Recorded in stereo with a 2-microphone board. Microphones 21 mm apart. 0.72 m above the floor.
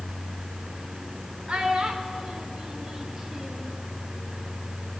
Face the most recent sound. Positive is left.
turn(degrees=-10)  # may be behind; listen again after turning